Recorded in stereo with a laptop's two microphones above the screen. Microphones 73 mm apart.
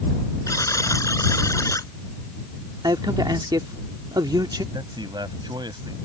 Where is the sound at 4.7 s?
85° right.